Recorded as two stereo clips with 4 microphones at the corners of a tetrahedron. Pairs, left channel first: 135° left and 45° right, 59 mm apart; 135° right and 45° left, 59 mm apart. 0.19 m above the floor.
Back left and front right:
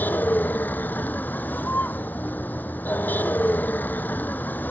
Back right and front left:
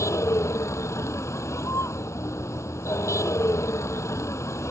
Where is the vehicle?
165° right.